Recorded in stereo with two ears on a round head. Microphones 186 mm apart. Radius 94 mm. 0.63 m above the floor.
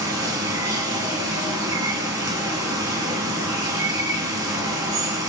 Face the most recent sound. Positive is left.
turn(degrees=-20)  # may be behind; listen again after turning